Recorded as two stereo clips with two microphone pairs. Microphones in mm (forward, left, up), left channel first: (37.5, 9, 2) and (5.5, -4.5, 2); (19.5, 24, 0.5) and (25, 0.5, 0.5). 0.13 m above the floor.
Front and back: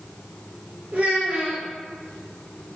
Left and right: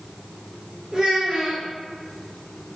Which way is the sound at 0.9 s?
125° right.